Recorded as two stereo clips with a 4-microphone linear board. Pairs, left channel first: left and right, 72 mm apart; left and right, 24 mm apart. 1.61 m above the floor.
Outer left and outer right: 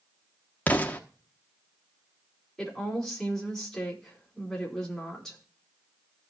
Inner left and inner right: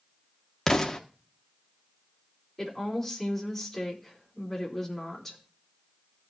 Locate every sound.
0.7 s an explosion: 20° left (ahead or behind), 1.3 m
2.6 s a woman speaking: 5° left (ahead or behind), 4 m